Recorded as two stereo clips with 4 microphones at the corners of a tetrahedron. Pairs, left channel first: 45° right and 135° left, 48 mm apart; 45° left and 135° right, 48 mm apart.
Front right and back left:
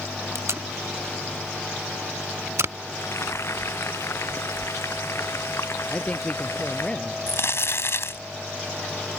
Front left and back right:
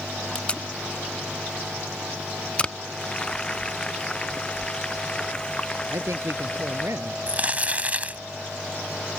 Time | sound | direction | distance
0.3 | tape being pulled | 110° left | ?
2.9 | frying | 25° right | ?
5.9 | a man speaking | 110° right | ?
7.3 | crumpling | 75° right | ?